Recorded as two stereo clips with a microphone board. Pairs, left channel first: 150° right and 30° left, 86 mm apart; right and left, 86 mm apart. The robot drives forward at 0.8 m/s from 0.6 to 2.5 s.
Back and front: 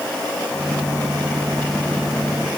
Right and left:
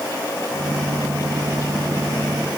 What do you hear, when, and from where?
Only background noise.